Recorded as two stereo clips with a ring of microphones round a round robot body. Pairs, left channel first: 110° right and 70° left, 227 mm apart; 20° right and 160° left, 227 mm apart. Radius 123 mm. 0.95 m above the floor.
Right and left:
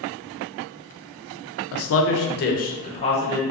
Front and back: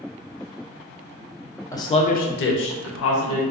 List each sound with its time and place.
1.7 s a man speaking: 100° right, 0.5 m; by 3.4 s 40° right, 1.0 m